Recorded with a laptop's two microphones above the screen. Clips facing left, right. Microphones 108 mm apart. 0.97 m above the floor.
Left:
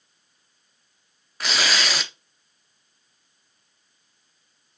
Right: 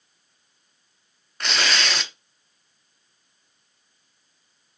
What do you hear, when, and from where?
1.4 s tearing paper: 5° left (ahead or behind), 0.5 m